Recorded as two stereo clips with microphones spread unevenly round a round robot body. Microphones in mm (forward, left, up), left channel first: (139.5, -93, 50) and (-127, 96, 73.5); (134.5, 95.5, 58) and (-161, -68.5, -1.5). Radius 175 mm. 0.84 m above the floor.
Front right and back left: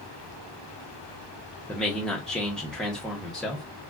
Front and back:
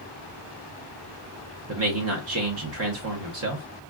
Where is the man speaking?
120° right, 0.8 m.